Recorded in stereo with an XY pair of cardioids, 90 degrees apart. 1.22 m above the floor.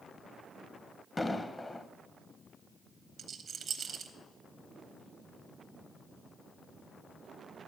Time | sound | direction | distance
1.2 | an explosion | 20° left | 0.6 m
3.2 | a rattle | 65° right | 1.1 m